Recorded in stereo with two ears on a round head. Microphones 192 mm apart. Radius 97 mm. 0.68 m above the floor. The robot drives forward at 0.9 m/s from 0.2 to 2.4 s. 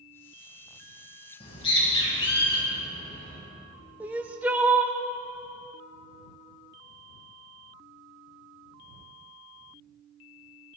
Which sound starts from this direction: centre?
Crying, at 4.0 s.